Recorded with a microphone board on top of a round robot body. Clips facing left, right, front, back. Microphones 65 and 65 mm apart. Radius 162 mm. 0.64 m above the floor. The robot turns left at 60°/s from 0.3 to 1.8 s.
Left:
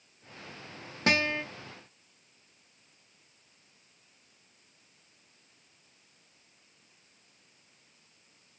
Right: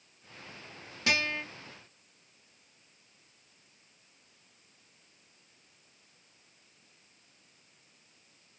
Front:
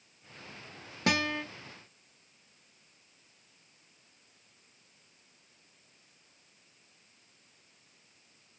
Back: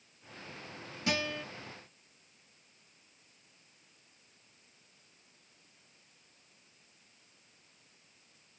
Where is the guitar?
40° left, 0.9 m; by 1.4 s 15° left, 0.9 m.